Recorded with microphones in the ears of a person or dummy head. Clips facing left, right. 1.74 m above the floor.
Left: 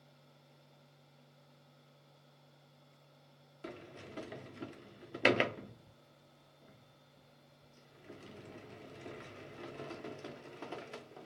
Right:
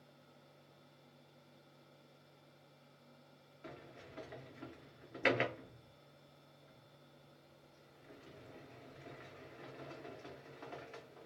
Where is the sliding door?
45° left (ahead or behind), 0.5 m.